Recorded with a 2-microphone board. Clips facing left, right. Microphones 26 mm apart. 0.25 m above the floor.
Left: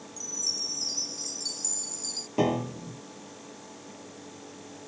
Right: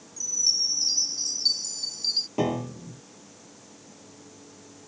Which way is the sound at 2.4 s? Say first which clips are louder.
Left 1 dB; 5° left (ahead or behind).